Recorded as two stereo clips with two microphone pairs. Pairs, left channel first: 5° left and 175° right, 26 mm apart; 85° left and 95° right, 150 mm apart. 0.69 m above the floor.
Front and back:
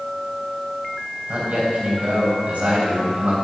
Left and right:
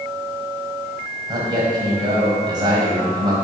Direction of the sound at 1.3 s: 155° right.